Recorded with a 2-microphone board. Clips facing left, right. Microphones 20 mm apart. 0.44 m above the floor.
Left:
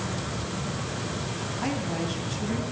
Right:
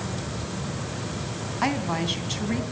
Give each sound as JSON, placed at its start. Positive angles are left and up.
{"t": 1.6, "sound": "a woman speaking", "side_deg": -60, "distance_m": 3.0}